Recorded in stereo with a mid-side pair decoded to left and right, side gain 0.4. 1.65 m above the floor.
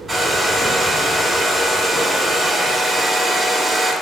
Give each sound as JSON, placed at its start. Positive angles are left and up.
{"t": 0.1, "sound": "a hair dryer", "azimuth_deg": -20, "distance_m": 1.8}